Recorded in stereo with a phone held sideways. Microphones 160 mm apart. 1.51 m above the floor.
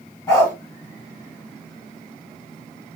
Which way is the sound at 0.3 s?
20° left (ahead or behind).